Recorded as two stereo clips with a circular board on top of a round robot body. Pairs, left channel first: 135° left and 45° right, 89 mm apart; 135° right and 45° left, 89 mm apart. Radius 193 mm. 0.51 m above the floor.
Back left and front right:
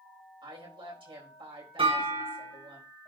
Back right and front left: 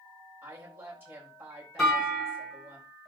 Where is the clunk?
50° right, 5.5 m.